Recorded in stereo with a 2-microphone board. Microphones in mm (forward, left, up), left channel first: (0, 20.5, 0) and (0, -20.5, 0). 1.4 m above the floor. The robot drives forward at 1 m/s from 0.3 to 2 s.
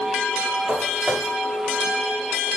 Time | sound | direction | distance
0.7 | footsteps | 60° right (ahead or behind) | 5.5 m